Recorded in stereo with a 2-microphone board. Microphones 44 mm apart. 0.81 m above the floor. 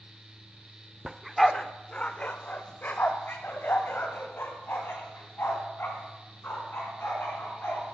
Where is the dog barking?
10° right (ahead or behind), 0.5 m; by 8.0 s 65° left (ahead or behind), 4 m.